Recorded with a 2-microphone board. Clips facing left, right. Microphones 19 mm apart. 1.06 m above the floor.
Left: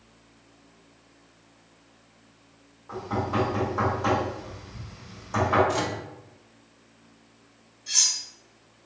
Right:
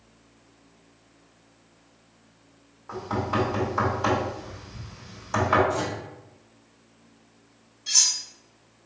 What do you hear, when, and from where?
2.9 s knocking: 40° right (ahead or behind), 2 m
5.7 s a microwave: 70° left (ahead or behind), 0.8 m
7.9 s cutlery clinking: 35° right (ahead or behind), 1.4 m